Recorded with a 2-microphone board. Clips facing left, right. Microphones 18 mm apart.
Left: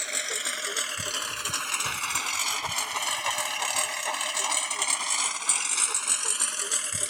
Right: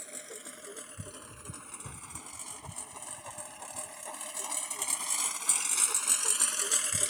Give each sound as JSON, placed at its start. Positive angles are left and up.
{"t": 0.0, "sound": "a lawn mower", "side_deg": 50}